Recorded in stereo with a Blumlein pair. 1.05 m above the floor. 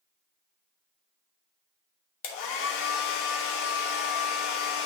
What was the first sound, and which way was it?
A hair dryer, 45° left.